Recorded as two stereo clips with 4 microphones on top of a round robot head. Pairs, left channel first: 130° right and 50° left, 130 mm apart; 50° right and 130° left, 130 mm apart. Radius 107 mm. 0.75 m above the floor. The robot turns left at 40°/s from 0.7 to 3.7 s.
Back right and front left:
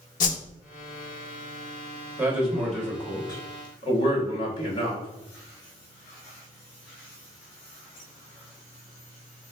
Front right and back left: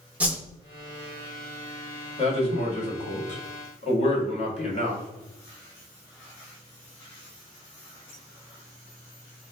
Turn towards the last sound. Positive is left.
turn(degrees=-80)